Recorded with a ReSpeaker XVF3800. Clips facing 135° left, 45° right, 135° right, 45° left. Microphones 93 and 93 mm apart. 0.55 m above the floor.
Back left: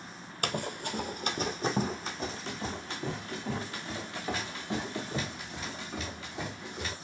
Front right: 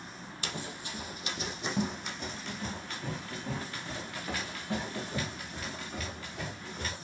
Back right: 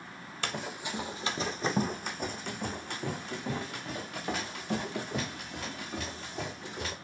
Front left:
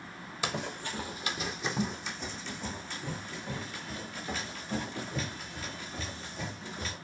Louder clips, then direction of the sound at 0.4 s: Back left 7 dB, front left 1 dB; 125° left.